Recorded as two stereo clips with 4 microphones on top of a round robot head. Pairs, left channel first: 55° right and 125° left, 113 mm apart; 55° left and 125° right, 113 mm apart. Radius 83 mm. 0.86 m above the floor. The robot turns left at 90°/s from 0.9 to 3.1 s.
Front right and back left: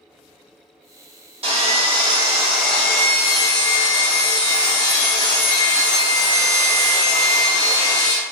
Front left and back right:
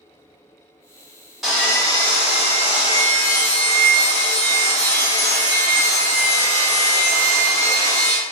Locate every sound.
1.4 s sawing: 145° left, 1.5 m; by 8.2 s 5° right, 1.5 m